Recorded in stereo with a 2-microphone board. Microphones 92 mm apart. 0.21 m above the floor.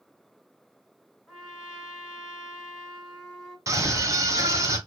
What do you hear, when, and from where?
1.3 s a trumpet: centre (ahead or behind), 3 m
3.7 s a scream: 35° right (ahead or behind), 1.9 m